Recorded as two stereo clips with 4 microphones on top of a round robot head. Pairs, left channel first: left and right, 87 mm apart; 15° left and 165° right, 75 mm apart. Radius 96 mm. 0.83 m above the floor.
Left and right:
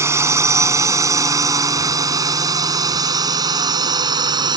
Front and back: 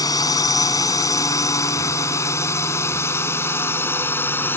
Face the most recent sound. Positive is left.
turn(degrees=-55)